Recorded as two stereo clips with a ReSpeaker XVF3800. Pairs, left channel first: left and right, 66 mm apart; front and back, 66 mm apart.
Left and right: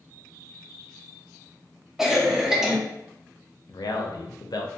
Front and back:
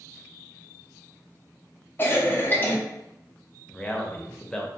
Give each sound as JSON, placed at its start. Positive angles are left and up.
{"t": 2.0, "sound": "a cough", "azimuth_deg": -10, "distance_m": 0.5}
{"t": 3.7, "sound": "a man speaking", "azimuth_deg": 75, "distance_m": 0.5}